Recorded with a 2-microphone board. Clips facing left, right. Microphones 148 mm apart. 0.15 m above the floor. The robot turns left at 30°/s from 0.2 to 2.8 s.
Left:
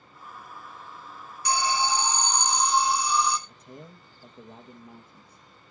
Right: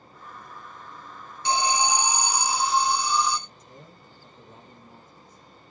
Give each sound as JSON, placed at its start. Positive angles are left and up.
{"t": 1.4, "sound": "an alarm", "azimuth_deg": -140, "distance_m": 1.5}
{"t": 3.5, "sound": "a man speaking", "side_deg": 65, "distance_m": 3.0}